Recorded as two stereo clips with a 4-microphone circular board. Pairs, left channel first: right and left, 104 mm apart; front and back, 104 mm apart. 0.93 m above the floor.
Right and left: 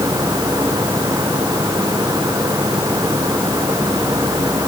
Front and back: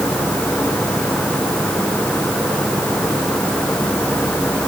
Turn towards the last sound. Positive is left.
No sound to turn to.